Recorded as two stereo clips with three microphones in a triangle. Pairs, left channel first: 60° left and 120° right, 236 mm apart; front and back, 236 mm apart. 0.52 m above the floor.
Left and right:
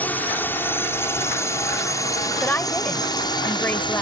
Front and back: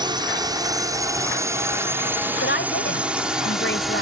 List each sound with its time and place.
0.0 s a drone: 135° left; by 4.0 s 90° left
2.4 s a woman speaking: 20° right